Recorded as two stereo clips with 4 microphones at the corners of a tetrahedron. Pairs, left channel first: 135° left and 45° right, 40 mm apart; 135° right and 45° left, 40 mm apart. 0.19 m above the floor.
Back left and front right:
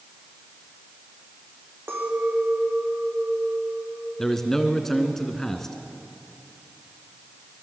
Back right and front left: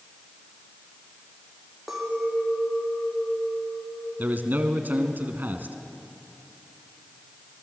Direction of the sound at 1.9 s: 35° right.